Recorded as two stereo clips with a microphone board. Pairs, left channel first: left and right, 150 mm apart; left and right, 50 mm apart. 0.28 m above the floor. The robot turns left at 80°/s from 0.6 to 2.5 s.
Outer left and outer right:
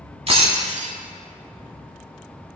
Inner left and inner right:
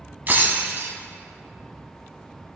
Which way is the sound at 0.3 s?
40° right (ahead or behind).